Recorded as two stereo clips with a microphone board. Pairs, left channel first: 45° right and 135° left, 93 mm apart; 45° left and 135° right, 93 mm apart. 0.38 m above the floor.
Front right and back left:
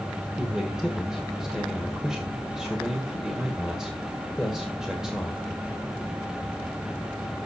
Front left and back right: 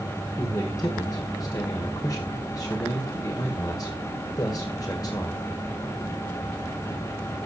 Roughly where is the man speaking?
Ahead left.